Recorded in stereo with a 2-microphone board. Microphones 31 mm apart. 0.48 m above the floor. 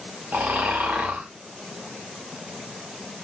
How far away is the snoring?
About 7 m.